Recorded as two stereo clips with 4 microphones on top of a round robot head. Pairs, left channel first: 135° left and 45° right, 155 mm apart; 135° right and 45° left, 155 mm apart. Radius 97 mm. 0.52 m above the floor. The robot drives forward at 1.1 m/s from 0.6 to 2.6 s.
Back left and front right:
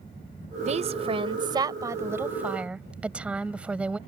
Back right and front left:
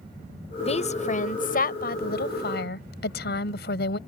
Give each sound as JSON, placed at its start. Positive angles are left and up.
{"t": 0.6, "sound": "a woman speaking", "azimuth_deg": -85}